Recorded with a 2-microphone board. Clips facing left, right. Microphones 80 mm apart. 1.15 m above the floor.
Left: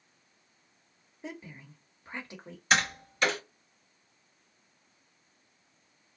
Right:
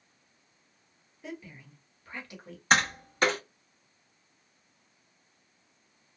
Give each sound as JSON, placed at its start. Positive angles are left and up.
{"t": 1.2, "sound": "a woman speaking", "side_deg": 25, "distance_m": 1.0}
{"t": 2.7, "sound": "tapping", "side_deg": -45, "distance_m": 1.2}